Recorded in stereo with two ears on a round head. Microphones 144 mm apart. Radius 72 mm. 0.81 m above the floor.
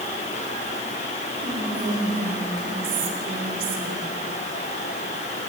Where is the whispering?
60° right (ahead or behind), 3 m.